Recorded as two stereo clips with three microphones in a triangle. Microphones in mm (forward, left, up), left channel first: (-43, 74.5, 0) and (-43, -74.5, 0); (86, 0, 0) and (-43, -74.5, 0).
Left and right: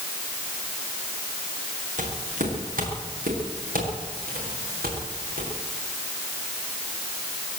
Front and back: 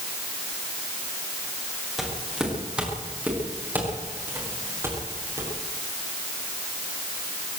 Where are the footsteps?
60° right, 7 m; by 5.5 s 80° right, 10 m.